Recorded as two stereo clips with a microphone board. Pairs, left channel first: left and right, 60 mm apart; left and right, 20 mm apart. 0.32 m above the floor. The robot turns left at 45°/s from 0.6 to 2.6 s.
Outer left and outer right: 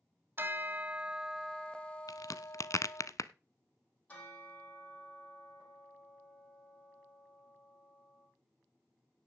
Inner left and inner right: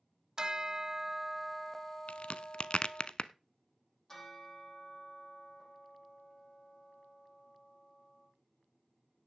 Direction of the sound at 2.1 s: 85° left.